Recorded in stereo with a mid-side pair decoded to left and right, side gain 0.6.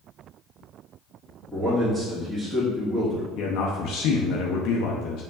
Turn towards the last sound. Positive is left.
turn(degrees=65)